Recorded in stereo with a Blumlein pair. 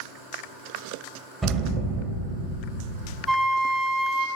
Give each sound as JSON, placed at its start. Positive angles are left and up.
{"t": 1.4, "sound": "an explosion", "azimuth_deg": -15, "distance_m": 0.9}
{"t": 3.3, "sound": "a flute", "azimuth_deg": -15, "distance_m": 0.6}